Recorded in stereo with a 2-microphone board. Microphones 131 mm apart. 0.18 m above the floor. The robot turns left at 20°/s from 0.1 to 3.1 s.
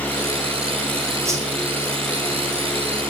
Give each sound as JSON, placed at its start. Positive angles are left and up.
{"t": 1.2, "sound": "a whoosh", "side_deg": -20, "distance_m": 7.0}